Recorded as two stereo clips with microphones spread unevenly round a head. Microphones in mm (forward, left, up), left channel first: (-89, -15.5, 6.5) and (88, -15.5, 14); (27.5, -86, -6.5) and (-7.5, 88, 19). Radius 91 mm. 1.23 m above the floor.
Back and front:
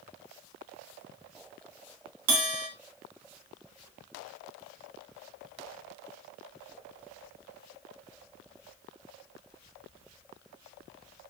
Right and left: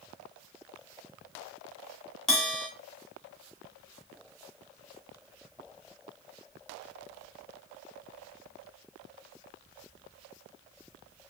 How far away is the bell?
About 2 m.